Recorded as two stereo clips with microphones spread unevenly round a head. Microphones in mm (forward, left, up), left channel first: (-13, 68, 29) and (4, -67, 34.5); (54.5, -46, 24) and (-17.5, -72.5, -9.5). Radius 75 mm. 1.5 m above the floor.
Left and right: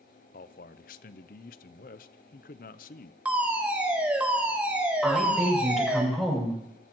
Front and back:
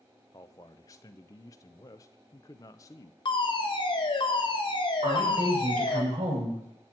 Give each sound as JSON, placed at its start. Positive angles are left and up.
{"t": 0.3, "sound": "a man speaking", "azimuth_deg": 70, "distance_m": 0.6}
{"t": 3.2, "sound": "a fire alarm", "azimuth_deg": 0, "distance_m": 3.0}
{"t": 5.0, "sound": "a woman speaking", "azimuth_deg": -170, "distance_m": 7.0}